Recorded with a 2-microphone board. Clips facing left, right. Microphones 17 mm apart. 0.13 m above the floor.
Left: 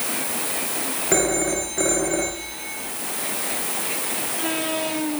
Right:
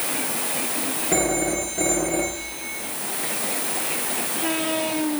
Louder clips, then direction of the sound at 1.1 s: Left 1 dB; 50° left (ahead or behind).